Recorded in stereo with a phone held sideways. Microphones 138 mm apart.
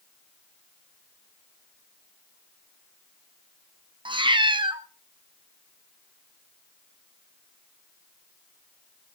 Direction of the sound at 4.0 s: 35° right (ahead or behind).